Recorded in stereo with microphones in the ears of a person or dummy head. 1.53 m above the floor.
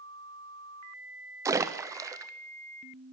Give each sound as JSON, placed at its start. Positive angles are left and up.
{"t": 1.4, "sound": "a splash", "side_deg": -20, "distance_m": 0.8}